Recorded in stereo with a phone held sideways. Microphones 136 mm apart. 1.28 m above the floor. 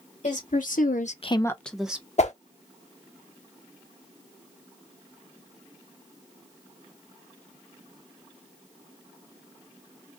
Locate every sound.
0.2 s a woman speaking: 65° left (ahead or behind), 1.1 m; by 2.1 s 10° right (ahead or behind), 1.0 m
2.2 s a whoosh: 55° left (ahead or behind), 0.7 m